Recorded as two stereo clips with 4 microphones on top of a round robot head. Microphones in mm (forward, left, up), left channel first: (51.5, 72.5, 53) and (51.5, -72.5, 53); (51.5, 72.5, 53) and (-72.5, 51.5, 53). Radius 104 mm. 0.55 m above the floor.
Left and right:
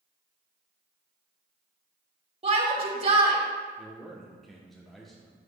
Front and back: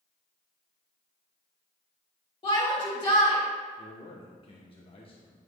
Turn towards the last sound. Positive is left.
turn(degrees=0)